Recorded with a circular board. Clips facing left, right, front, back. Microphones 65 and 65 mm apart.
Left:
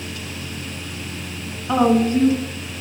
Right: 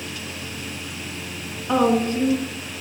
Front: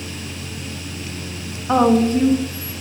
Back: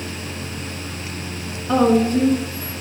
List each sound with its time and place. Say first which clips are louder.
1.7 s a woman speaking: left 3 dB, front 1 dB; 10° left, 1.0 m; by 2.8 s 50° left, 1.9 m